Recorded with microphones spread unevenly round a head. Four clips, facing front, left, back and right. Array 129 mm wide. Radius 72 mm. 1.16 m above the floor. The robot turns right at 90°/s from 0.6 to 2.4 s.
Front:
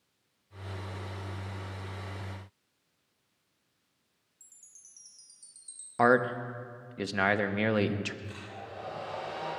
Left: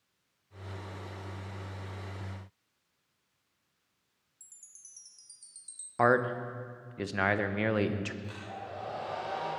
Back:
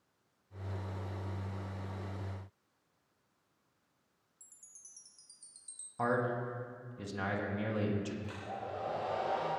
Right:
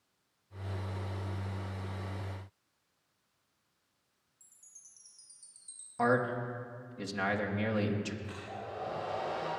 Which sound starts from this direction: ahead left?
A man speaking, at 6.0 s.